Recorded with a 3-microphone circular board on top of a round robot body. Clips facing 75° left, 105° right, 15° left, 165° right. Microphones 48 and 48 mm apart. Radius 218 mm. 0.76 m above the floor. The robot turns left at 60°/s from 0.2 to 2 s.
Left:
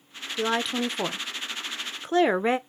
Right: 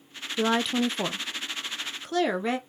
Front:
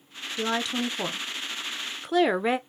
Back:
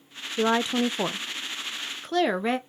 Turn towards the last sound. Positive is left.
turn(degrees=85)